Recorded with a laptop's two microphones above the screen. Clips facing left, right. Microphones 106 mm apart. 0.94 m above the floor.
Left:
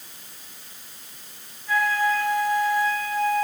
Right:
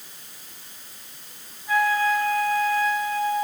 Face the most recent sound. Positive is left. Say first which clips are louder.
# right 1 dB
turn(degrees=-15)  # may be behind; listen again after turning